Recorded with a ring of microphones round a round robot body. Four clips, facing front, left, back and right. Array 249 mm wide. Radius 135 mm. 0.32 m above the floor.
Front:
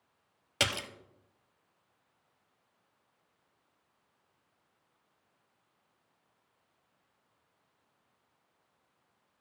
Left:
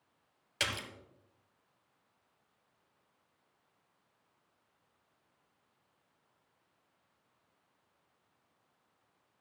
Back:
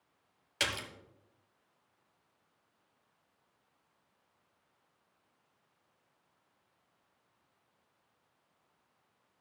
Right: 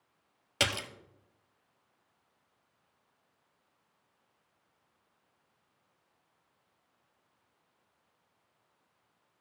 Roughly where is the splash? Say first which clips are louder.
Right 5 dB, front 3 dB; ahead right.